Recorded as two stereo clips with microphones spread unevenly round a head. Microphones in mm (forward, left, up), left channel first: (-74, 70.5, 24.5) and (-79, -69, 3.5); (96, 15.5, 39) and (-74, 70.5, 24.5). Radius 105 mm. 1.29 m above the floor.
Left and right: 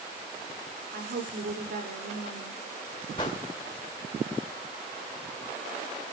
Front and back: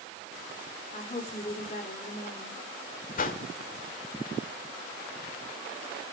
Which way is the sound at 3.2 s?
20° left.